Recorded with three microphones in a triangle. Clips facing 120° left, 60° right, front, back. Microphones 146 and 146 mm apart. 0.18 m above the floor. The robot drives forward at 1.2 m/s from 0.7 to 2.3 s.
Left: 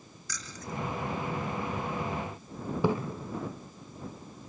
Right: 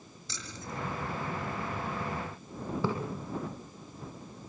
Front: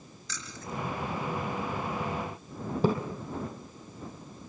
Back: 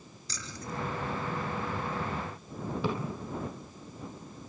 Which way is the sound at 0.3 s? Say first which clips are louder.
Left 2 dB, even; 125° right.